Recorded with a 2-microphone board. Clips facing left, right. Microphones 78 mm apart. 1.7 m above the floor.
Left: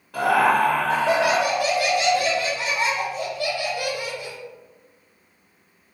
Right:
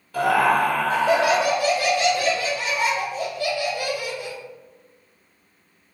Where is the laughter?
60° left (ahead or behind), 1.3 m.